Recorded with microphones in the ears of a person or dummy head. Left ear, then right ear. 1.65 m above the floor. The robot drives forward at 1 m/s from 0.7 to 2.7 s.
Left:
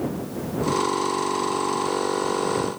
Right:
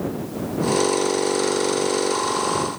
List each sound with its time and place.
Only background noise.